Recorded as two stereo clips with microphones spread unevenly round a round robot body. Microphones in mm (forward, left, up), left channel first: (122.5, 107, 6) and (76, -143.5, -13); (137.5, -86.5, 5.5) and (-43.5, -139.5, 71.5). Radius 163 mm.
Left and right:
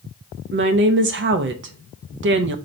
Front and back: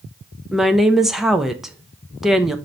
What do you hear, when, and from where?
0.5 s a woman speaking: 65° right, 0.6 m